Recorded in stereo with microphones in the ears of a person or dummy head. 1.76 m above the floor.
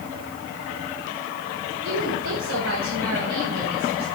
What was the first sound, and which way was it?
A woman speaking, 65° right (ahead or behind).